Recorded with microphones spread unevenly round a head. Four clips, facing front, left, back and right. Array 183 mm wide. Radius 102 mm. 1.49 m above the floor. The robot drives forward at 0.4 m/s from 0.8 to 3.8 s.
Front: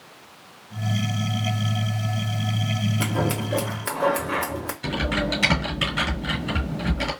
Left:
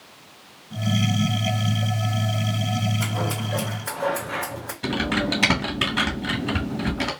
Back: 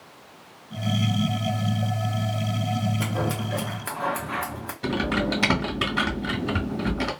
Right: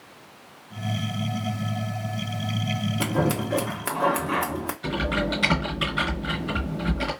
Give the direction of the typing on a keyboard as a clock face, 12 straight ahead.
7 o'clock.